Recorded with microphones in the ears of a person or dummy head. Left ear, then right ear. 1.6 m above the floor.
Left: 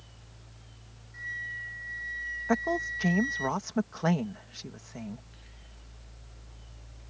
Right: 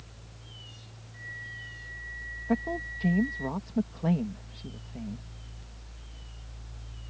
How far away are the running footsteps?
No running footsteps in this recording.